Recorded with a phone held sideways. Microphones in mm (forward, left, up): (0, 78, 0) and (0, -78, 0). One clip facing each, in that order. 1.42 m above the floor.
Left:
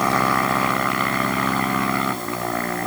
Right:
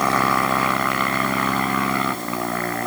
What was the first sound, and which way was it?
Only background noise.